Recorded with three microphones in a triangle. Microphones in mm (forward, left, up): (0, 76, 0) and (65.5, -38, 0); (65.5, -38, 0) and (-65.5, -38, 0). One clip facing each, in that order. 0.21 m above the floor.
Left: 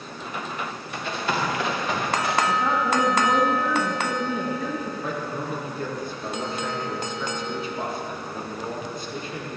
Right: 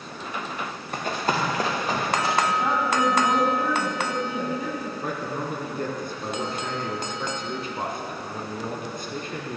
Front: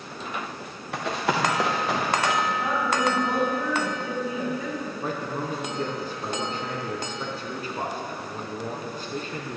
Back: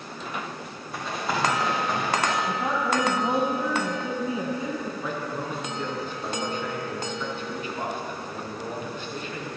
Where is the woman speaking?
130° right, 1.7 m.